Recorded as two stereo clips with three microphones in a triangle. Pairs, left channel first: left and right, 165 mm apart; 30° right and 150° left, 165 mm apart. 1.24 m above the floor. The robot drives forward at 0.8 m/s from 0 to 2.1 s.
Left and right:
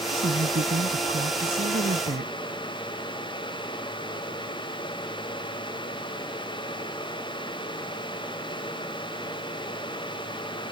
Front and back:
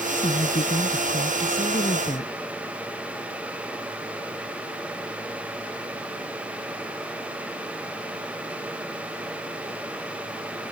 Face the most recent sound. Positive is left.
turn(degrees=-80)